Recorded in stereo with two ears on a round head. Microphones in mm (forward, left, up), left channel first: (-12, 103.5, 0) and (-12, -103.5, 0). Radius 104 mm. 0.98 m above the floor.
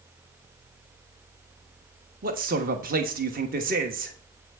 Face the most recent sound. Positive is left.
turn(degrees=-40)  # may be behind; listen again after turning